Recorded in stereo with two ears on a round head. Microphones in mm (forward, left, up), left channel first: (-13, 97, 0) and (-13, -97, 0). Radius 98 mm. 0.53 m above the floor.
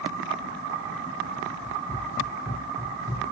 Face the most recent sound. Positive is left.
turn(degrees=40)  # may be behind; listen again after turning